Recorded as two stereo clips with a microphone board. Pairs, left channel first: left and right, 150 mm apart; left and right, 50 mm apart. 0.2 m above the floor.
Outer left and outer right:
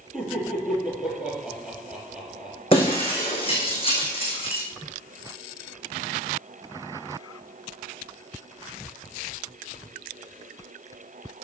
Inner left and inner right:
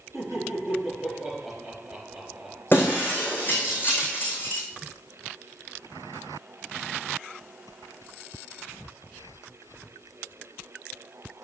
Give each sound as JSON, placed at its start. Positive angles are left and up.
{"t": 0.1, "sound": "laughter", "side_deg": -5, "distance_m": 5.5}
{"t": 2.7, "sound": "breaking glass", "side_deg": 40, "distance_m": 4.5}